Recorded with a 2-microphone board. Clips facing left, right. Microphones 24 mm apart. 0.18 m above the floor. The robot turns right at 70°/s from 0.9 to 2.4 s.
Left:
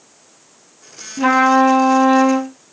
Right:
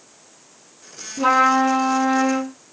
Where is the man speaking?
I don't hear a man speaking.